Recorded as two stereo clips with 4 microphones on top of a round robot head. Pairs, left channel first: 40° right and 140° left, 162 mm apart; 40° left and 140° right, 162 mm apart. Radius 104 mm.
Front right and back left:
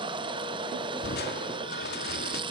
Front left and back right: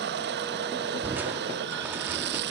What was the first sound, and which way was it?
Running water, 155° right.